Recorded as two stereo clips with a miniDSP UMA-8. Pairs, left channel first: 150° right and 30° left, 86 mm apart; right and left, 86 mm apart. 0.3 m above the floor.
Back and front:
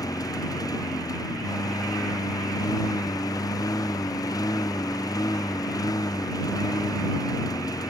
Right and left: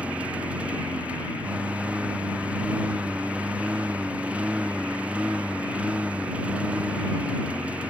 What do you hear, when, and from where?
0.0 s a lawn mower: 165° left